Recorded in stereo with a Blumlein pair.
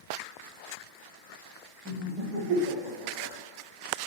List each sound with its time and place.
1.9 s laughter: 35° right, 1.1 m; by 3.3 s 25° left, 1.0 m